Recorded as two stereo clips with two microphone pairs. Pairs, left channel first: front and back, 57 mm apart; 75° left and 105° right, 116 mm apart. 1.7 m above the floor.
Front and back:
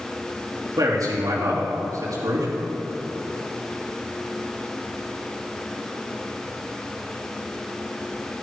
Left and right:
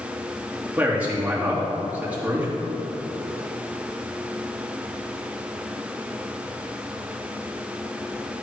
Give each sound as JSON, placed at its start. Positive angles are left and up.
{"t": 0.8, "sound": "a man speaking", "azimuth_deg": 175, "distance_m": 3.0}